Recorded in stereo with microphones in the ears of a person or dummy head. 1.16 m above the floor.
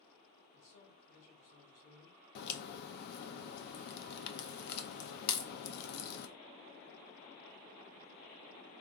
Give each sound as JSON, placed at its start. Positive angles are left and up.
{"t": 0.5, "sound": "a man speaking", "side_deg": 75, "distance_m": 2.5}
{"t": 2.4, "sound": "a crack", "side_deg": 55, "distance_m": 0.5}